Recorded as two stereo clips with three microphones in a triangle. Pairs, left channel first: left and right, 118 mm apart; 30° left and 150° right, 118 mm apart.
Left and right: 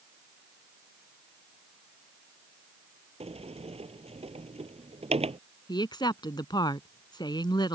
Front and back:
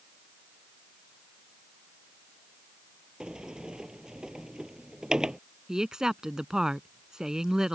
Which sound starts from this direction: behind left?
A woman speaking, at 5.7 s.